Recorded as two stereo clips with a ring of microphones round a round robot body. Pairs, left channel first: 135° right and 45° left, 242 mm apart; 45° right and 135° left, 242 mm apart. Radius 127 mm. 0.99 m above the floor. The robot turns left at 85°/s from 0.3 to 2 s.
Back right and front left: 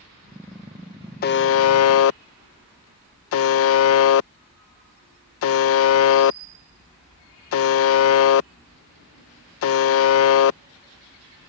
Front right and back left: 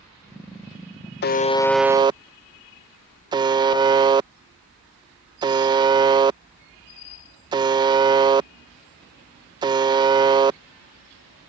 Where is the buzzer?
85° right; by 10.6 s 155° right.